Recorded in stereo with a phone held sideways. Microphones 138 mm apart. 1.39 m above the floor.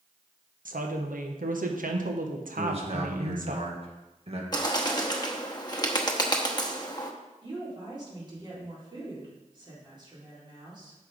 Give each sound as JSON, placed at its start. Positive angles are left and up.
{"t": 0.7, "sound": "a woman speaking", "side_deg": -80, "distance_m": 1.1}
{"t": 2.6, "sound": "a man speaking", "side_deg": -45, "distance_m": 1.7}
{"t": 4.5, "sound": "a bird", "side_deg": 30, "distance_m": 1.0}
{"t": 7.4, "sound": "a woman speaking", "side_deg": -35, "distance_m": 4.0}